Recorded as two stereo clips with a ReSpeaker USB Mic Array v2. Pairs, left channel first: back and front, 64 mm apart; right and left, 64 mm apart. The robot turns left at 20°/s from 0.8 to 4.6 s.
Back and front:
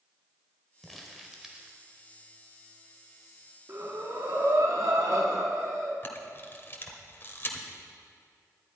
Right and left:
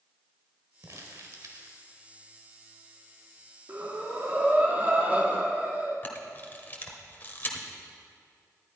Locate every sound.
0.8 s crumpling: 95° left, 1.5 m; by 1.8 s 75° left, 1.5 m
3.7 s breathing: 45° left, 1.6 m; by 5.9 s 25° left, 1.6 m
6.0 s a camera shutter: 140° right, 1.3 m